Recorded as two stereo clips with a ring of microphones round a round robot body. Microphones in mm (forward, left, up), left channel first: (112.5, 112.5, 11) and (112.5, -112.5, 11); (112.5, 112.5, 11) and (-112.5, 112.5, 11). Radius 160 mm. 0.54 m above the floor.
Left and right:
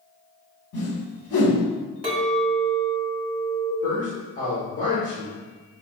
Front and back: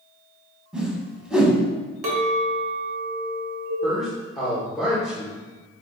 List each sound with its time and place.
0.7 s a whoosh: 95° left, 1.0 m
2.0 s a clink: 160° right, 1.0 m
3.8 s a man speaking: 90° left, 1.3 m